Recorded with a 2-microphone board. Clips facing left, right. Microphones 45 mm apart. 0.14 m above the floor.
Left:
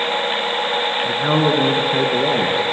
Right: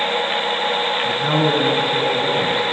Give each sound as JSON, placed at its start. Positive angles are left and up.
{"t": 1.1, "sound": "a man speaking", "side_deg": 15, "distance_m": 1.2}